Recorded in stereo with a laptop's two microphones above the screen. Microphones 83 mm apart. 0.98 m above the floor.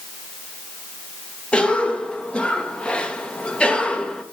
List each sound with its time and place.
1.5 s a cough: 10° left (ahead or behind), 1.0 m